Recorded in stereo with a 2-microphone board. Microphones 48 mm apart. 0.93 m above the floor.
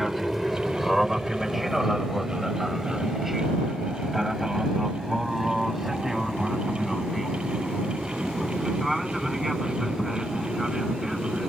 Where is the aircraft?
5° right (ahead or behind).